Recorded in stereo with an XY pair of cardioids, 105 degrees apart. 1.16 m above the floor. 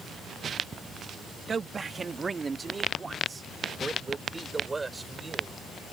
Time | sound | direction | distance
1.5 | a man speaking | 40° right | ?